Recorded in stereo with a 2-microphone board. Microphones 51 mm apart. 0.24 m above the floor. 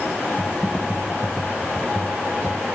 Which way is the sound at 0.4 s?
10° right (ahead or behind).